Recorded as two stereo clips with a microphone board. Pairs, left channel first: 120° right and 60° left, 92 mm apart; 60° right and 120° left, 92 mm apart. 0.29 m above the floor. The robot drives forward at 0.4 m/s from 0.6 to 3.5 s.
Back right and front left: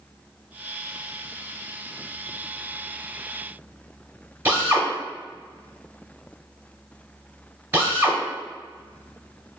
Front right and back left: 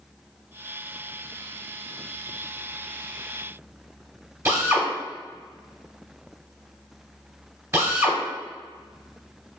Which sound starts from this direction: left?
A drill, at 4.5 s.